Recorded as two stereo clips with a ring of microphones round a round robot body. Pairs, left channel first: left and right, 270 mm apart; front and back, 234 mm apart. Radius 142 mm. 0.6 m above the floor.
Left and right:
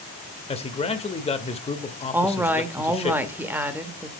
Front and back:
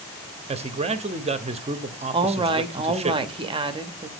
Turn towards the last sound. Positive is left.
turn(degrees=-160)